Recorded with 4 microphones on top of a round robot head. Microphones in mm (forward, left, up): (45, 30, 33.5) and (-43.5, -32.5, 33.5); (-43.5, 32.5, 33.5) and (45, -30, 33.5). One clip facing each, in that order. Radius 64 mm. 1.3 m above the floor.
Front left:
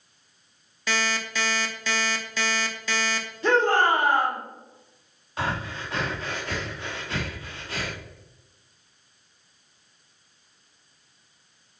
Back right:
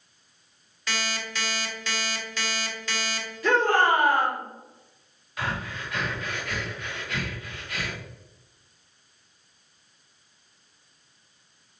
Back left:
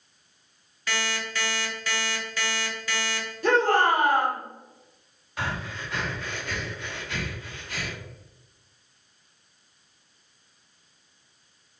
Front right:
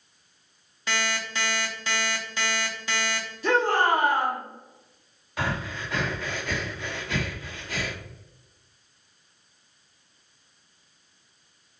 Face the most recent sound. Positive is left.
turn(degrees=-25)